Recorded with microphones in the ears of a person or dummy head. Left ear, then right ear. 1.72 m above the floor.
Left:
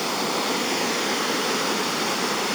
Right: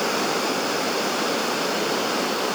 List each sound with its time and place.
Only background noise.